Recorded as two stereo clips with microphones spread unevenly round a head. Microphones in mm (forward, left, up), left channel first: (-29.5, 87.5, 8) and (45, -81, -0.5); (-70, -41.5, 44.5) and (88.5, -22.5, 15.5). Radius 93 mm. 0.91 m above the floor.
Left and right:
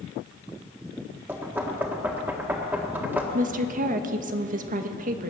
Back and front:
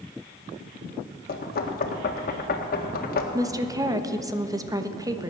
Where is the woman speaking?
45° right, 1.1 m.